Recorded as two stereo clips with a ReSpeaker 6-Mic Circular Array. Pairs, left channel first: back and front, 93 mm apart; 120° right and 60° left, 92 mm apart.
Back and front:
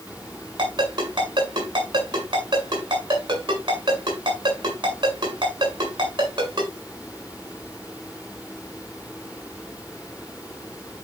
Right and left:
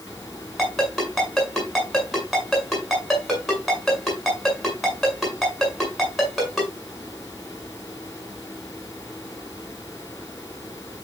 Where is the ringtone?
30° right, 7 m.